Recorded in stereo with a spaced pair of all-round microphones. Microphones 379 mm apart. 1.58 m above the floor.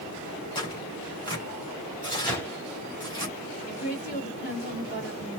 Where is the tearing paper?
10° left (ahead or behind), 3 m.